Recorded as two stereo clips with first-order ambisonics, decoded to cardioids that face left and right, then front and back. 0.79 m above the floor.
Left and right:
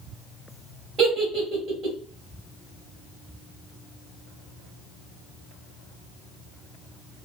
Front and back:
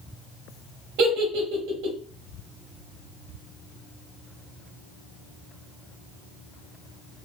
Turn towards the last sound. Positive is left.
turn(degrees=-150)